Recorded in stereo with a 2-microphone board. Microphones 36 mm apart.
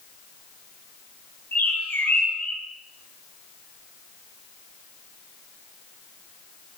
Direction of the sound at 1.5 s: 80° left.